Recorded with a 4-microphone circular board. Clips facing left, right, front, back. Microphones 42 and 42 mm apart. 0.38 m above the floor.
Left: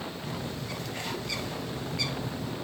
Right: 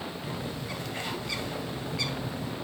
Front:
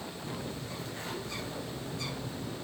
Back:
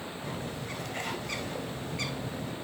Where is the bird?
175° right, 1.6 m.